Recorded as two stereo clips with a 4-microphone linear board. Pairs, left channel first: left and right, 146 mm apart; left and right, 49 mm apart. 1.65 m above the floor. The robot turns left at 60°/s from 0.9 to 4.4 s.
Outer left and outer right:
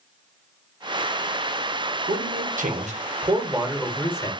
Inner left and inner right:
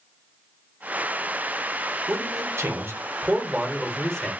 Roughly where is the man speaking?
Right.